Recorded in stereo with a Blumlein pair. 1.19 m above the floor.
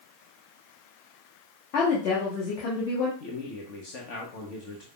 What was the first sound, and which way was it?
A woman speaking, 40° left.